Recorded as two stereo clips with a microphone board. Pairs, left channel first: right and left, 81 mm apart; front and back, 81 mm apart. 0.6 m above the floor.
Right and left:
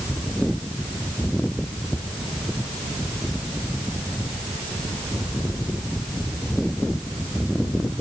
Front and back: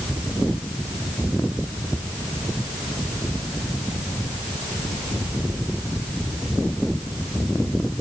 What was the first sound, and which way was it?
Only background noise.